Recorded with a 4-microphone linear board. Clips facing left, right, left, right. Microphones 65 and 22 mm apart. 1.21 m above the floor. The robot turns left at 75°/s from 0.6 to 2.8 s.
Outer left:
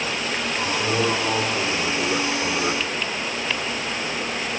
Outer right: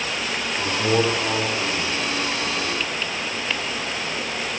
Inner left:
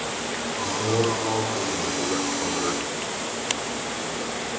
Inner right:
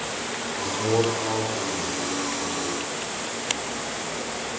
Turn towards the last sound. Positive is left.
turn(degrees=65)